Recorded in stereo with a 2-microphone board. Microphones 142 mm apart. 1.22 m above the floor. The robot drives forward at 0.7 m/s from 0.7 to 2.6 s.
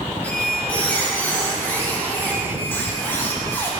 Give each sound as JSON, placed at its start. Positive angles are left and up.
{"t": 0.2, "sound": "a squeak", "side_deg": 10, "distance_m": 4.0}